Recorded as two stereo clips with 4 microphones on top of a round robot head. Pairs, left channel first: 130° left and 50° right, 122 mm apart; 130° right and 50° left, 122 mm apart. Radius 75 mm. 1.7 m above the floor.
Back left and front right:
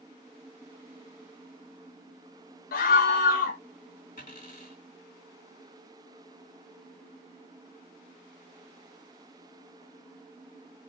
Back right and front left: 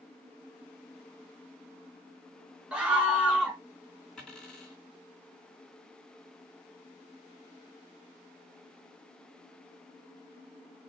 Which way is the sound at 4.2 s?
150° left.